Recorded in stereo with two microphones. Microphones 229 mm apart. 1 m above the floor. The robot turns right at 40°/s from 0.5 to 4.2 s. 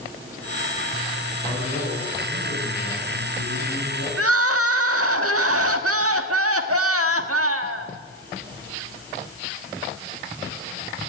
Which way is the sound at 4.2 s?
80° right.